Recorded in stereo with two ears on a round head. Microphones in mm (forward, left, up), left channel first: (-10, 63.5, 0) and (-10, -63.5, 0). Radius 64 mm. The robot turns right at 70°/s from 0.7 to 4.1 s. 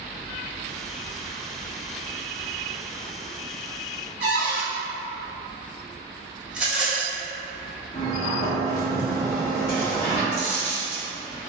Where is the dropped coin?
35° right (ahead or behind), 1.8 m.